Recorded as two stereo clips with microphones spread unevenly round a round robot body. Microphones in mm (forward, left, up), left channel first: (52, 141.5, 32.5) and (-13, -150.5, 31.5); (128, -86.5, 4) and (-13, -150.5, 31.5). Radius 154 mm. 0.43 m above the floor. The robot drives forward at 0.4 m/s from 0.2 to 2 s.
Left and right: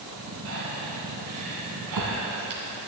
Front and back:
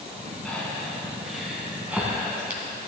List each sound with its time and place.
0.5 s breathing: 60° right, 2.5 m; by 2.6 s 75° right, 2 m